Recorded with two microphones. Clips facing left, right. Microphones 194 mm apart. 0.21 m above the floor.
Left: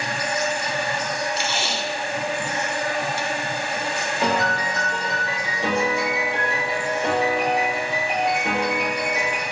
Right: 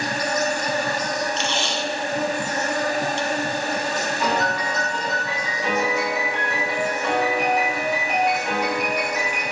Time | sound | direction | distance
0.0 | an insect | 45° right (ahead or behind) | 1.1 m
1.4 | tape being pulled | 10° left (ahead or behind) | 0.8 m
4.2 | a piano | 30° left (ahead or behind) | 4 m